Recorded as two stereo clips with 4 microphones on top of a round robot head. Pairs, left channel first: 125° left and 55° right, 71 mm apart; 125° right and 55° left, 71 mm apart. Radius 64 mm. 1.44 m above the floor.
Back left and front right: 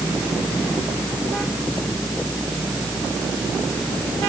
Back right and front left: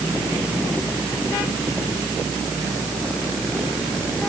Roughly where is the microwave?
No microwave in this recording.